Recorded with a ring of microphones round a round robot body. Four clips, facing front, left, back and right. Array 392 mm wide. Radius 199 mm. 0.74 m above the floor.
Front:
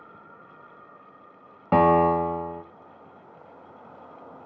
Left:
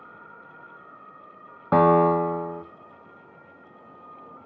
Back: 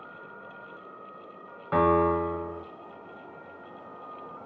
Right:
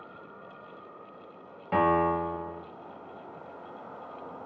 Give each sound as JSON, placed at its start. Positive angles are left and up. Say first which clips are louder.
{"t": 1.7, "sound": "a piano", "louder": "left 7 dB, front 4 dB", "azimuth_deg": 40, "distance_m": 1.1}